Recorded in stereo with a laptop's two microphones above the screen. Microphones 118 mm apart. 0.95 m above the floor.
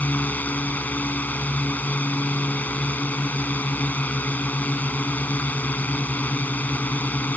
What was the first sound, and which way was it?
A drone, 15° left (ahead or behind).